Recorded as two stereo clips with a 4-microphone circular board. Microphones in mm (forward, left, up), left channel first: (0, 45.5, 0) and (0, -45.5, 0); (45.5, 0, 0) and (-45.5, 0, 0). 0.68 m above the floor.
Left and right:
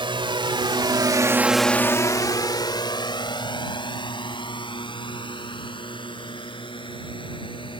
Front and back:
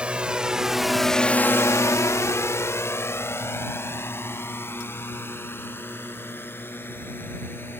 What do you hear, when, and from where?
0.0 s a drone: 105° right; by 7.8 s 65° left